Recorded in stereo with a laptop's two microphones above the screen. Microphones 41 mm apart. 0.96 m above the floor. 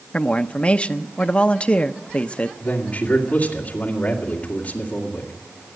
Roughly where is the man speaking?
Left.